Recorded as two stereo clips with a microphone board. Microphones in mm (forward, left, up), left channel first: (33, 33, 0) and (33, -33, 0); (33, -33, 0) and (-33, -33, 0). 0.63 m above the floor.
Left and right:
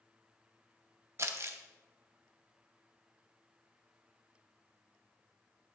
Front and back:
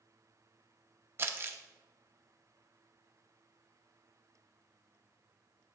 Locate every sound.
1.2 s crumpling: 130° right, 0.6 m